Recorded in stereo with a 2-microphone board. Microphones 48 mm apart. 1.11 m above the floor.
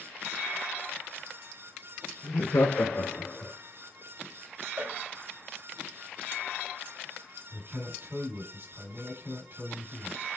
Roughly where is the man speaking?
Right.